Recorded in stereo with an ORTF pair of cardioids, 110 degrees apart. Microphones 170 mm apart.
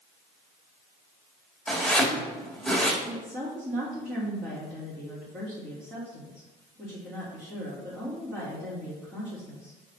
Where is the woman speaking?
5° right, 3 m.